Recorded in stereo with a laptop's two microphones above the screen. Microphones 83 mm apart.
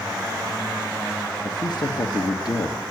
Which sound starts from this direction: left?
A man speaking, at 1.4 s.